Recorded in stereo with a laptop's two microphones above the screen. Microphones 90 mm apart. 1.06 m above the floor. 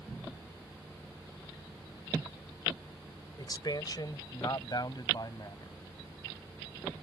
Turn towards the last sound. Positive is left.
turn(degrees=45)  # may be behind; listen again after turning